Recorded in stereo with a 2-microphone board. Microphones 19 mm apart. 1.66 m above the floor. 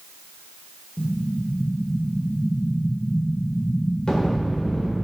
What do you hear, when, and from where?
1.0 s an explosion: 35° left (ahead or behind), 2 m